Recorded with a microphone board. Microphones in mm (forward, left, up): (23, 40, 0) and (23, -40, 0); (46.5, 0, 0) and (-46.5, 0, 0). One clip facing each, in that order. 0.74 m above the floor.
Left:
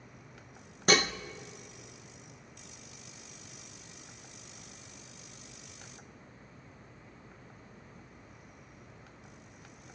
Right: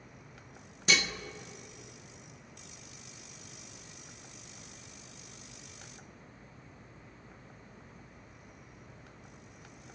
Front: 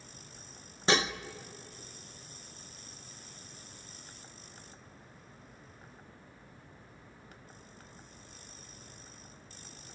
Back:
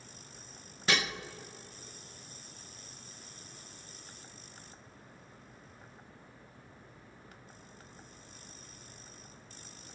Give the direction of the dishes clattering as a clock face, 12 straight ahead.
10 o'clock.